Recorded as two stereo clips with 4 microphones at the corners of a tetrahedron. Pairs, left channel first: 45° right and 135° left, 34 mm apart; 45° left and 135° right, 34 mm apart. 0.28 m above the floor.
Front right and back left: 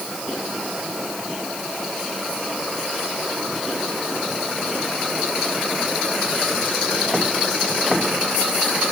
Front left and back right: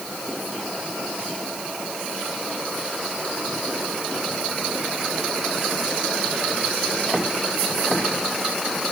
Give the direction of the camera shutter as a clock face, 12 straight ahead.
No camera shutter in this recording.